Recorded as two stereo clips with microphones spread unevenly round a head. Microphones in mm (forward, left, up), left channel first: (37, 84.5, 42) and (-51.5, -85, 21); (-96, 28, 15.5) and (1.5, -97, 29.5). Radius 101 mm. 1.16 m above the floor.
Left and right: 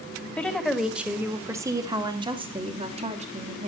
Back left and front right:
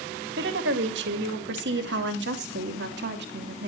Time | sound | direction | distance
0.4 | a woman speaking | 25° right | 2.0 m